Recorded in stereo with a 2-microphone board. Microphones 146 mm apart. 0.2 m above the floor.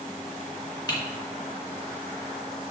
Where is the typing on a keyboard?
30° left (ahead or behind), 3 m.